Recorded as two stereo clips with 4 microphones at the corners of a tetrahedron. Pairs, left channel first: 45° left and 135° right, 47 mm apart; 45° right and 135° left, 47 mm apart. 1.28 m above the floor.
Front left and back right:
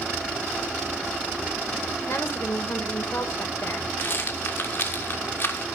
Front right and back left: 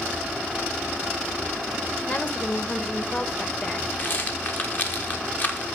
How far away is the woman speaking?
About 1.4 m.